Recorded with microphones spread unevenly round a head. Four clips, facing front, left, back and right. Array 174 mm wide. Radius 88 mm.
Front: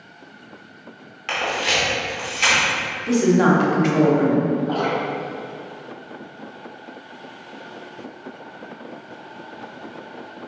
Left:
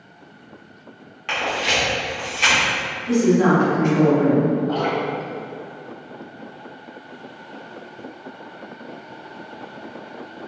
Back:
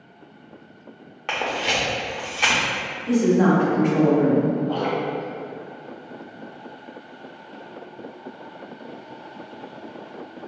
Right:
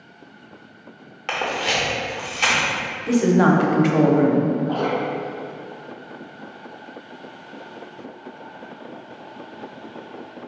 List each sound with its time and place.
1.3 s a camera shutter: 145° right, 0.7 m
3.1 s a woman speaking: 55° right, 0.6 m
4.7 s dripping: 5° left, 2.0 m